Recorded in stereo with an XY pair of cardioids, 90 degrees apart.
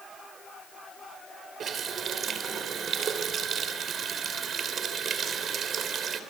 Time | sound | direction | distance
1.6 | a running tap | 60° right | 3 m